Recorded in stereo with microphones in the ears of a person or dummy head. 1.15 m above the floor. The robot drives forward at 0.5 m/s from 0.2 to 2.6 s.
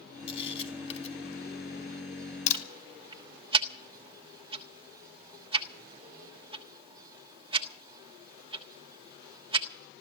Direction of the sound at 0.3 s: 35° left (ahead or behind).